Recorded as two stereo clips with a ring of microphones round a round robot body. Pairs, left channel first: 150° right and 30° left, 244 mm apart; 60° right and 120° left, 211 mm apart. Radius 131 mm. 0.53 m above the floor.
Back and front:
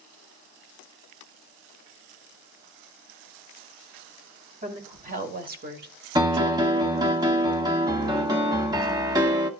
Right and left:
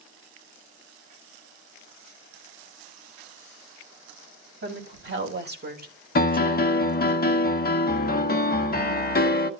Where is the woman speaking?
90° left, 3 m; by 7.2 s 25° right, 1.0 m.